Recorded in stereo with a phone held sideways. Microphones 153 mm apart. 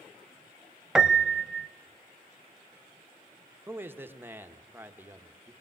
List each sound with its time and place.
0.9 s a piano: 5° right (ahead or behind), 0.6 m
3.7 s a man speaking: 15° right (ahead or behind), 1.1 m